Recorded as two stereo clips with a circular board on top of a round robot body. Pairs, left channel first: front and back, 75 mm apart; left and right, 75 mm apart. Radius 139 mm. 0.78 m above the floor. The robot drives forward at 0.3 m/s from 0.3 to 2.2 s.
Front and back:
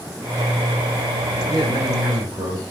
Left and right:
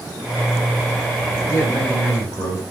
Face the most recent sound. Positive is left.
turn(degrees=140)